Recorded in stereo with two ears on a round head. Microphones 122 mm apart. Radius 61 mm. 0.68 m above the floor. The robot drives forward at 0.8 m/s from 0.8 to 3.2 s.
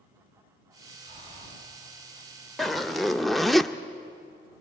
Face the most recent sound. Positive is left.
turn(degrees=0)  # may be behind; listen again after turning